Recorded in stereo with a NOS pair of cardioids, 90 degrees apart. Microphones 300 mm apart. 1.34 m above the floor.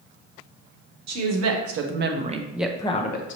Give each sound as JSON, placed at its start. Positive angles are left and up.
{"t": 1.1, "sound": "a woman speaking", "azimuth_deg": -65, "distance_m": 1.3}